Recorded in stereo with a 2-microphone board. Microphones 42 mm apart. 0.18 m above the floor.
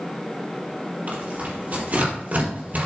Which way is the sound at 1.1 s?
40° right (ahead or behind).